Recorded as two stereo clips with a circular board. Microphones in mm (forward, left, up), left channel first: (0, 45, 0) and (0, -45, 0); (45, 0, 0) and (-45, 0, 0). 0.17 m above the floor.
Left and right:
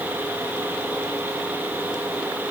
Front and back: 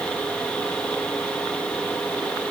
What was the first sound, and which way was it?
Only background noise.